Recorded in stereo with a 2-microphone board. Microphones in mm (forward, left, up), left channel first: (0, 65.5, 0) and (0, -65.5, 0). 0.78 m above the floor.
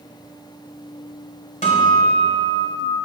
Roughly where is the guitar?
Left.